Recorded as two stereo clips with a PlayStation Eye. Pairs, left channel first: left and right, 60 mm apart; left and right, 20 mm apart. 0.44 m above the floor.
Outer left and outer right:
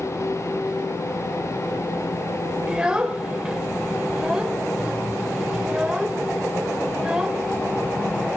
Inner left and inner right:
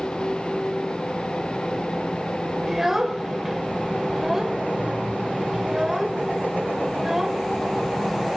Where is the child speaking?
15° right (ahead or behind), 1.4 m.